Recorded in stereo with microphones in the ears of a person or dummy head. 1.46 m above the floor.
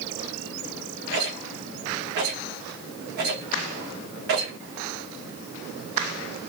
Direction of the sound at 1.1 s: 55° right (ahead or behind).